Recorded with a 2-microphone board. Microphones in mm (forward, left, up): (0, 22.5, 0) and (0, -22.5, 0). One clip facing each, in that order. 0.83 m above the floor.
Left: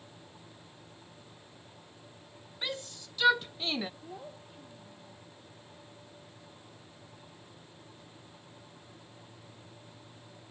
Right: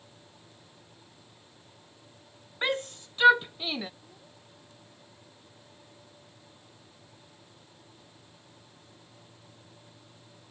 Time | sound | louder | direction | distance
2.6 | a shout | right 9 dB | 45° right (ahead or behind) | ?
4.0 | a child speaking | left 9 dB | 60° left (ahead or behind) | ?